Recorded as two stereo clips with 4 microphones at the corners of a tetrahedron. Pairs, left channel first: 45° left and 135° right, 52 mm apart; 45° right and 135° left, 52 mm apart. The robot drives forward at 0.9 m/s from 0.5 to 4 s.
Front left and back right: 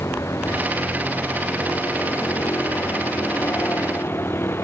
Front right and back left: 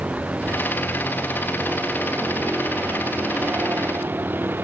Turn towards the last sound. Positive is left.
turn(degrees=85)